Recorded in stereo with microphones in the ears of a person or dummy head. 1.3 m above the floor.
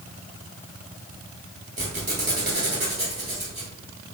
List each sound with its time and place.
1.8 s a squeak: 25° right (ahead or behind), 1.4 m